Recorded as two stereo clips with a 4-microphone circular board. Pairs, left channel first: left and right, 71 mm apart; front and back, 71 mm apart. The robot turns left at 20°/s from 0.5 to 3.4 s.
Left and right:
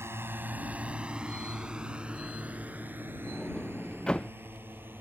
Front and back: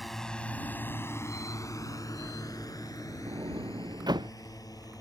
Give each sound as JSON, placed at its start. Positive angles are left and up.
{"t": 0.0, "sound": "a drone", "azimuth_deg": -90}
{"t": 3.3, "sound": "a sliding door", "azimuth_deg": 170}